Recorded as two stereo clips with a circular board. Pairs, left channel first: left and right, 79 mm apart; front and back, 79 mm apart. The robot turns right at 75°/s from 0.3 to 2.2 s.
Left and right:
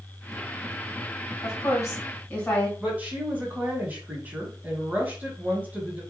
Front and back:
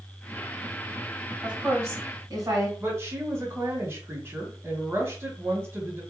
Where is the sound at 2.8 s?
145° right, 1.6 m.